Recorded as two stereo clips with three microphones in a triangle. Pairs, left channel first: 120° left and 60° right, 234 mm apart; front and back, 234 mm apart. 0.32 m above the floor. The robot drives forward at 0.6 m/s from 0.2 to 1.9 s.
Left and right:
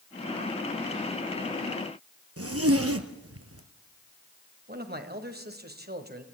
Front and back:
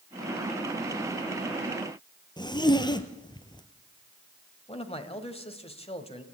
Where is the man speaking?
50° right, 1.7 m.